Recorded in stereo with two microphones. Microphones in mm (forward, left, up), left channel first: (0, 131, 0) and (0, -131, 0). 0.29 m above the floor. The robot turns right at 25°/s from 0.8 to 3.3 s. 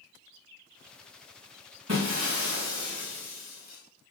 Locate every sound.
1.9 s breaking glass: 70° right, 7.5 m; by 3.8 s 35° right, 7.5 m